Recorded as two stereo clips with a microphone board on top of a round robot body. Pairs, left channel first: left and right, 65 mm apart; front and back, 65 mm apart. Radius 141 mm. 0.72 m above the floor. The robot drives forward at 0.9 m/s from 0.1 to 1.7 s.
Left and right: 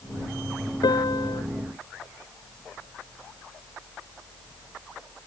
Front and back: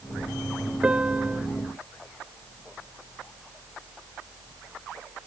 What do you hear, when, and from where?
0.8 s a piano: 105° left